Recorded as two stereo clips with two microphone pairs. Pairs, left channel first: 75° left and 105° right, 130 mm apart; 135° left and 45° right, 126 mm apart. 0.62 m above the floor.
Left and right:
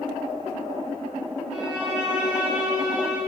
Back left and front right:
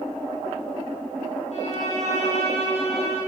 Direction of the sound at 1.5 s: 170° left.